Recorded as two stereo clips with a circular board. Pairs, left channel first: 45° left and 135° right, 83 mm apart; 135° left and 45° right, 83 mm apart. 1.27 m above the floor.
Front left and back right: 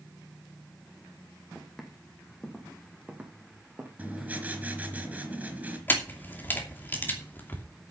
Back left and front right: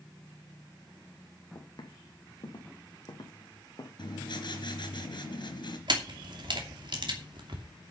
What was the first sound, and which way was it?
Footsteps, 130° left.